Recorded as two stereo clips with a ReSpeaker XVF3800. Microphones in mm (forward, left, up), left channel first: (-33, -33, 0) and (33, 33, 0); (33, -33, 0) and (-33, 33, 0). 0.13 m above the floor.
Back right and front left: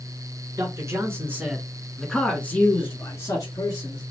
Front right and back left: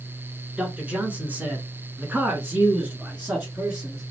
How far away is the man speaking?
About 1.5 m.